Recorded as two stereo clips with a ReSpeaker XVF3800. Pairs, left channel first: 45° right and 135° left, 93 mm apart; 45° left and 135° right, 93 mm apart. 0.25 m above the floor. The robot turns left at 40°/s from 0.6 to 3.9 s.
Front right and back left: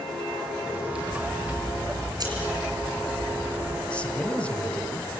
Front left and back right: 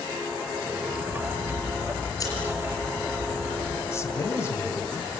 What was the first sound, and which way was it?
Scissors, 145° left.